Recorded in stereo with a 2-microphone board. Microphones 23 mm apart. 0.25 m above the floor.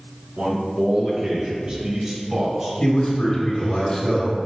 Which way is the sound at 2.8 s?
35° left (ahead or behind).